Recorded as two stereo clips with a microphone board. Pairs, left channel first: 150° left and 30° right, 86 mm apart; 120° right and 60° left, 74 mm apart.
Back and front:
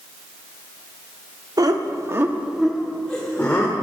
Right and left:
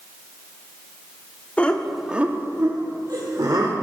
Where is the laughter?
55° right, 1.2 m; by 3.7 s 85° left, 2 m.